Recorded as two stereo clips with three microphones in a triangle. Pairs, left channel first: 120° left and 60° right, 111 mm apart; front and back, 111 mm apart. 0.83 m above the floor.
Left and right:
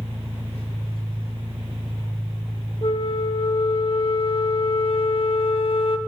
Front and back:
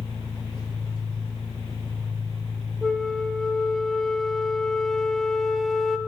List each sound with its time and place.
0.0 s an engine running: 35° right, 6.5 m
2.8 s a flute: 90° left, 0.6 m